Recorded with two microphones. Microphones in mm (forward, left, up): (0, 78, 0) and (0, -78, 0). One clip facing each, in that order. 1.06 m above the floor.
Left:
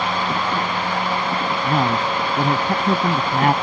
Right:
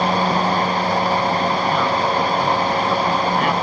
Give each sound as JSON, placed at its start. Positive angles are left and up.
{"t": 1.6, "sound": "a man speaking", "side_deg": 40}